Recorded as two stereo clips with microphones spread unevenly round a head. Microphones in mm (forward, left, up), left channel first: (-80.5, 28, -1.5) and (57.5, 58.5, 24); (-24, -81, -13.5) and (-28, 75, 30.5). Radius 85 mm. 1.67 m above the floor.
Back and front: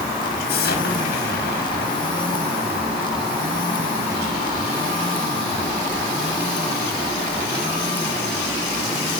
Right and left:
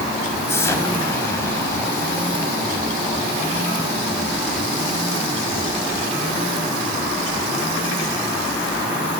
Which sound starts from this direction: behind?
An explosion, at 0.5 s.